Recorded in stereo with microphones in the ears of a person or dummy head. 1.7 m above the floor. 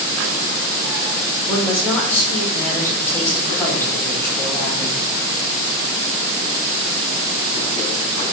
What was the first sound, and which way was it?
A woman speaking, 15° left (ahead or behind).